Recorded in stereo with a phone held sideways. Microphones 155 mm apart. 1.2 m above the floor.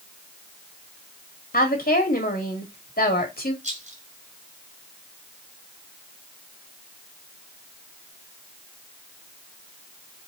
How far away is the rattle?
About 1.9 m.